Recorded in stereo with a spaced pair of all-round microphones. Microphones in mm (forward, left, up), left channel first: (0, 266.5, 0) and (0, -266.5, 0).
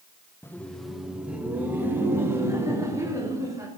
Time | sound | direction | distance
0.4 | laughter | 5° left (ahead or behind) | 0.6 m